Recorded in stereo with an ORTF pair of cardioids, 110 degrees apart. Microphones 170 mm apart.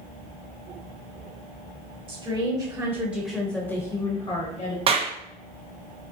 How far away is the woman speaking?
About 1.4 m.